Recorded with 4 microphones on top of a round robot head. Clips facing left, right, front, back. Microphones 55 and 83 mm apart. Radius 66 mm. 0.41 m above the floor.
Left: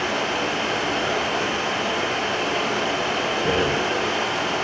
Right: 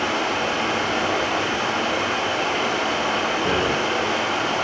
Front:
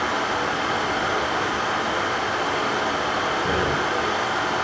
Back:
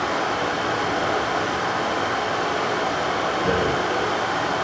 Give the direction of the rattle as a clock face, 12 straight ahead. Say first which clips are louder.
Left 2 dB, back 2 dB; 6 o'clock.